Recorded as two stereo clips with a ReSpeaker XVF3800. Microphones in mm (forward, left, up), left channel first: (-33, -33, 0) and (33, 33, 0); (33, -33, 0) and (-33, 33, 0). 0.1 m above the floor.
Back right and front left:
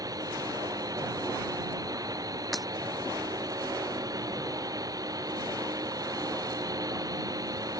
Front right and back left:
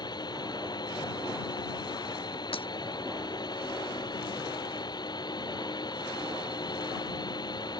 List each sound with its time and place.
0.0 s a drone: 5° right
2.5 s breaking glass: 45° right